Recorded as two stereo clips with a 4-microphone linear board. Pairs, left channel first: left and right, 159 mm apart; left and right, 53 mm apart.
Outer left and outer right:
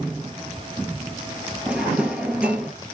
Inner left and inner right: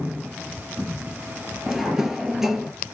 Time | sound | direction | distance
1.7 | a drawer | 10° right (ahead or behind) | 0.7 m